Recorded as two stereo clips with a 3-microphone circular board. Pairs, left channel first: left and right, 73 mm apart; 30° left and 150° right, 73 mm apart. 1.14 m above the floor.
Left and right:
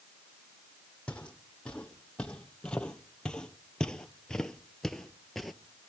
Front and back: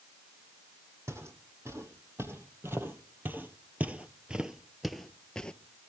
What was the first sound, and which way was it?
Footsteps, 165° left.